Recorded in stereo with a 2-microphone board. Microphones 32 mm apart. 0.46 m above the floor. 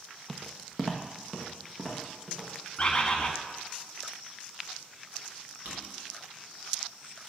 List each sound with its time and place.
0.3 s footsteps: centre (ahead or behind), 0.6 m; by 2.5 s 15° right (ahead or behind), 2.5 m
2.8 s a bird: 25° left (ahead or behind), 0.8 m
5.7 s a drawer: 75° right (ahead or behind), 2 m